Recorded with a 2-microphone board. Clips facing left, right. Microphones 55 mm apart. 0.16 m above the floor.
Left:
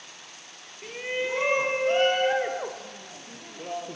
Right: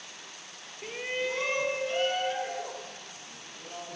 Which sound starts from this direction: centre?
A shout, at 0.8 s.